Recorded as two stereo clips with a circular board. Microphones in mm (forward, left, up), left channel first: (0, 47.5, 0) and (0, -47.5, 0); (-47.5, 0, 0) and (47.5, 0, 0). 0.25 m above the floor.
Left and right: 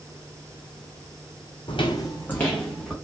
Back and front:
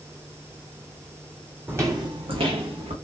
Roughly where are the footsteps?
Left.